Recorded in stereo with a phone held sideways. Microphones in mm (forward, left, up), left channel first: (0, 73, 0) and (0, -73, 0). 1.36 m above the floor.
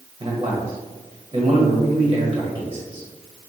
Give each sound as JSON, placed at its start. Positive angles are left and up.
{"t": 0.2, "sound": "a man speaking", "side_deg": -30, "distance_m": 1.2}